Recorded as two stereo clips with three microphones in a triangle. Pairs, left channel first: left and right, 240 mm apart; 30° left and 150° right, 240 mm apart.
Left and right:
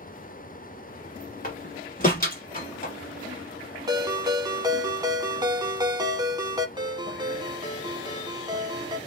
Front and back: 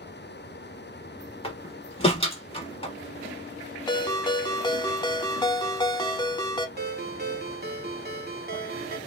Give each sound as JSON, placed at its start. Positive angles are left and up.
{"t": 1.4, "sound": "a door slam", "azimuth_deg": 75, "distance_m": 1.0}
{"t": 3.9, "sound": "a ringtone", "azimuth_deg": -30, "distance_m": 0.6}
{"t": 6.8, "sound": "a ringtone", "azimuth_deg": -155, "distance_m": 0.6}